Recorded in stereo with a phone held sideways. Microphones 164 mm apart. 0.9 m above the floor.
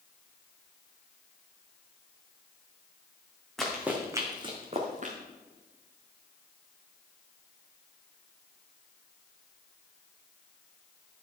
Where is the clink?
No clink in this recording.